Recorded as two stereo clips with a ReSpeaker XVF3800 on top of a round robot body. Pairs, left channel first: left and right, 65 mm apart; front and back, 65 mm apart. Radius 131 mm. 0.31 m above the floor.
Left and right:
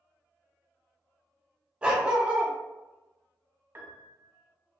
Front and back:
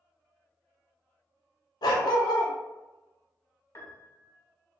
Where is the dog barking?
15° right, 0.6 m.